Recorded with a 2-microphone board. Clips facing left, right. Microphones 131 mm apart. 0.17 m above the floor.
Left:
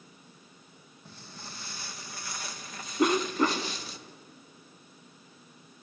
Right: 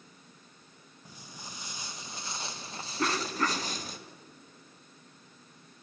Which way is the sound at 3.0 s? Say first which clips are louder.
Left 6 dB; 20° left (ahead or behind).